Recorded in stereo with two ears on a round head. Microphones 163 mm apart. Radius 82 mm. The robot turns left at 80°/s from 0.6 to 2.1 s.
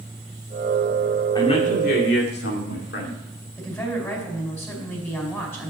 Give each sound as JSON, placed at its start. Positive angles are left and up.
{"t": 1.4, "sound": "a man speaking", "azimuth_deg": 155, "distance_m": 2.5}
{"t": 3.6, "sound": "a woman speaking", "side_deg": 15, "distance_m": 4.5}